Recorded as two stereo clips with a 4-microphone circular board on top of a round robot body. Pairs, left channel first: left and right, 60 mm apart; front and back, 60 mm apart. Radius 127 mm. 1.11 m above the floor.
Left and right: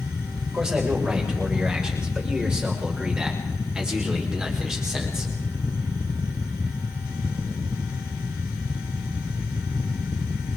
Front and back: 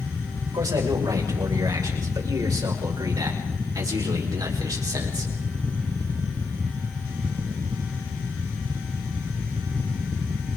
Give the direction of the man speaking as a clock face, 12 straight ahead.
6 o'clock.